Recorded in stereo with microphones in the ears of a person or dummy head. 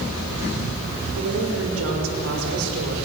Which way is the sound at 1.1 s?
80° right.